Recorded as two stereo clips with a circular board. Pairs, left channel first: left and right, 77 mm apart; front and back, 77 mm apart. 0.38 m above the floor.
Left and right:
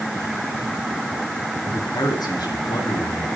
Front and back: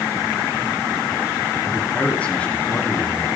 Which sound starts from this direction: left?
A man speaking, at 1.6 s.